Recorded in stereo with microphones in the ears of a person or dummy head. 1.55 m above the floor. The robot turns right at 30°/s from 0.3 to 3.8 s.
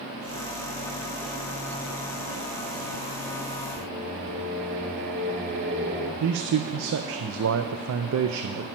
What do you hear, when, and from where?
3.8 s singing: 35° right (ahead or behind), 1.5 m; by 6.1 s 40° right (ahead or behind), 1.5 m
6.2 s a man speaking: 75° right (ahead or behind), 0.5 m